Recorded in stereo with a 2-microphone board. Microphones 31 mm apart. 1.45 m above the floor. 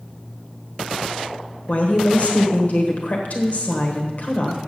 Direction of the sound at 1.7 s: 55° left (ahead or behind).